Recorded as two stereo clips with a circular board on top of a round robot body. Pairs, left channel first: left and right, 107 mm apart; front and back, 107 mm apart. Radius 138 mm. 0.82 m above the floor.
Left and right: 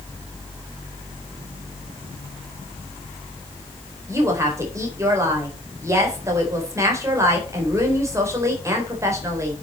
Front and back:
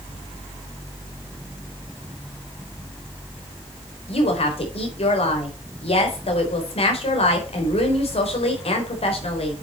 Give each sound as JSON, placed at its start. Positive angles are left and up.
{"t": 4.1, "sound": "a woman speaking", "azimuth_deg": -25, "distance_m": 4.0}